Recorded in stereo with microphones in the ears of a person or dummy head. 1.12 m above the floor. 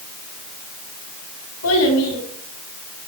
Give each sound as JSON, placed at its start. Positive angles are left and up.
{"t": 1.6, "sound": "a child speaking", "side_deg": 85, "distance_m": 5.0}